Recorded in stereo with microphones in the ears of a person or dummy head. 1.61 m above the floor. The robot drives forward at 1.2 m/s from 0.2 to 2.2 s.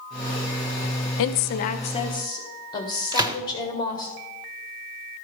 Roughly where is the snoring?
I don't hear snoring.